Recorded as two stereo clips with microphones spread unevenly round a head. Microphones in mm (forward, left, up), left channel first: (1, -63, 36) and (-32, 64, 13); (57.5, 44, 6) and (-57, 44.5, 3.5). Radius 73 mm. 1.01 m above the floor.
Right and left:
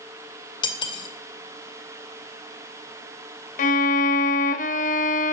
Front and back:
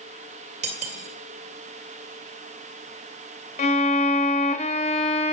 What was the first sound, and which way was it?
Cutlery clinking, 130° right.